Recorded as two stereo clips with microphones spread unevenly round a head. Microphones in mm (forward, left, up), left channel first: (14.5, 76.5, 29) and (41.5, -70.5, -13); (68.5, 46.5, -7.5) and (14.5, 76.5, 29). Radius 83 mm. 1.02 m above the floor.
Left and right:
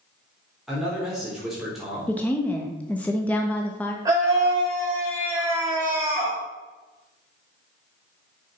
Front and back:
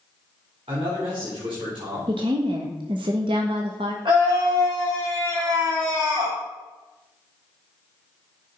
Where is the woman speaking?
170° right, 1.2 m.